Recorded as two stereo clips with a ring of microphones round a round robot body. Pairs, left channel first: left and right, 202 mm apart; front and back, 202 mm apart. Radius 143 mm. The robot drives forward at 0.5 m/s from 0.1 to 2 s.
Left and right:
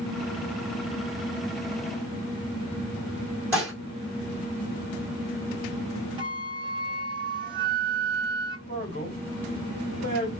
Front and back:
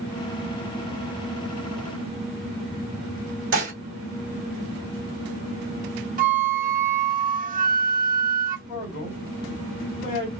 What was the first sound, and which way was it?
Dishes clattering, 170° right.